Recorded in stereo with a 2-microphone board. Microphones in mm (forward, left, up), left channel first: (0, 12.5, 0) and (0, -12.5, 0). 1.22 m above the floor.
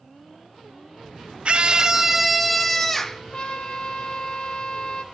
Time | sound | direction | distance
1.4 | a scream | 45° right (ahead or behind) | 0.5 m
3.3 | a trumpet | 40° left (ahead or behind) | 1.7 m